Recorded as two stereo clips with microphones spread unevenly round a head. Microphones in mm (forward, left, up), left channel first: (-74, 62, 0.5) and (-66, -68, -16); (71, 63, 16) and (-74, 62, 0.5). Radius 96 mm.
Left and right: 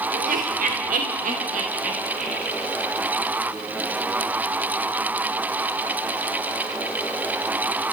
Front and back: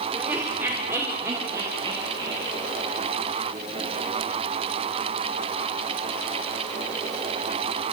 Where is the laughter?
95° right, 3 m; by 2.6 s 105° right, 7 m.